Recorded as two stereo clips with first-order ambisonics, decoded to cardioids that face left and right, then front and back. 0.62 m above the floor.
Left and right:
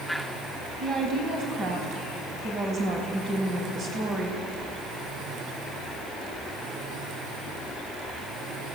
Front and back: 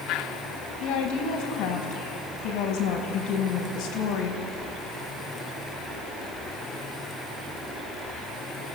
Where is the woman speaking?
30° right, 4 m.